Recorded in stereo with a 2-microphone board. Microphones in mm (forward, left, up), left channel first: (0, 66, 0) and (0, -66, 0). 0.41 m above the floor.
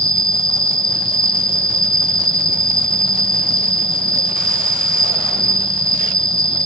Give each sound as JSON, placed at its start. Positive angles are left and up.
{"t": 0.0, "sound": "an insect", "side_deg": 50}